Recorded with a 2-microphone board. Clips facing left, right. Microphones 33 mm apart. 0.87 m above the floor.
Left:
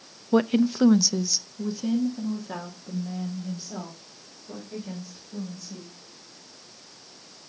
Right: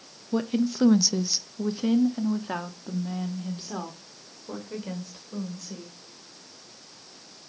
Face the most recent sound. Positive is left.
turn(degrees=-60)  # may be behind; listen again after turning